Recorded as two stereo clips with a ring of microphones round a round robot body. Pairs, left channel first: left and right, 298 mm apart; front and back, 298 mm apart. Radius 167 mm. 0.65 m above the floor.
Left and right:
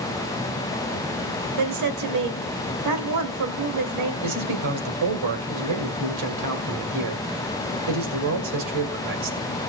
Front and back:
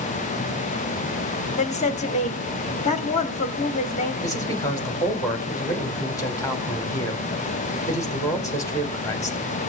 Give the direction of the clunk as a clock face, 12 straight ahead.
I don't hear a clunk.